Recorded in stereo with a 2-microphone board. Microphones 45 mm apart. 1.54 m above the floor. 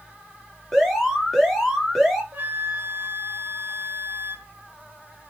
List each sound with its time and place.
0.7 s an alarm: centre (ahead or behind), 5.5 m
2.3 s a flute: 45° right (ahead or behind), 1.8 m